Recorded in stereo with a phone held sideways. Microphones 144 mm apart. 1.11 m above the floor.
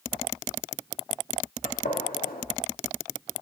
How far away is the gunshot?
About 1.9 m.